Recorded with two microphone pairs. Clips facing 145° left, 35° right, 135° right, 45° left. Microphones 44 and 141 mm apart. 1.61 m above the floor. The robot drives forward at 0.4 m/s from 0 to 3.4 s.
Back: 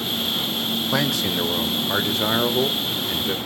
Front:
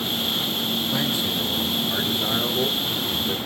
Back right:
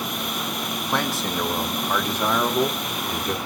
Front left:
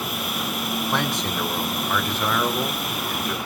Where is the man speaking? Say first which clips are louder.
Back 2 dB, back right 3 dB; 135° left, 1.1 m; by 3.4 s 155° left, 1.9 m.